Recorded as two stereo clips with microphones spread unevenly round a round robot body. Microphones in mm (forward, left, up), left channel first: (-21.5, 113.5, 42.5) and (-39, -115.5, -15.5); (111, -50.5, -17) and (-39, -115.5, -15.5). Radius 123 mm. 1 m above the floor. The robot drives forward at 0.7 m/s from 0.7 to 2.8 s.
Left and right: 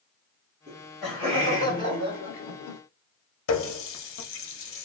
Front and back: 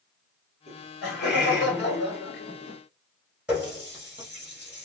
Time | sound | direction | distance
0.7 | laughter | 15° left | 1.7 m
3.5 | a running tap | 120° left | 0.8 m